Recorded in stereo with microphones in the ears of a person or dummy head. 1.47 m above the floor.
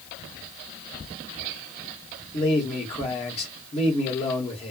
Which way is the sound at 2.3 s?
35° left (ahead or behind).